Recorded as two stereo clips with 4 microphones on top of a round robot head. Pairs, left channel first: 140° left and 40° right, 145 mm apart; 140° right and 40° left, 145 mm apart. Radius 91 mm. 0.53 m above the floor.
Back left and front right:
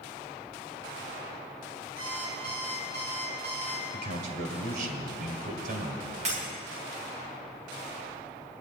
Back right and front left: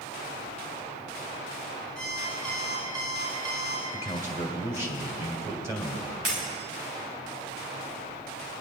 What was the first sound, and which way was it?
An alarm clock, 25° right.